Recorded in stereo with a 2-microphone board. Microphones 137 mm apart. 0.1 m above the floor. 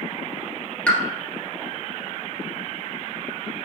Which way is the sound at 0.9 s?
10° left (ahead or behind).